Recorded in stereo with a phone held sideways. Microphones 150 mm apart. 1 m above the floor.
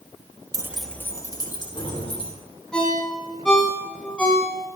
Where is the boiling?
I don't hear boiling.